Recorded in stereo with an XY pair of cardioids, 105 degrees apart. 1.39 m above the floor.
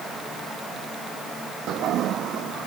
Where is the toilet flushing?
70° right.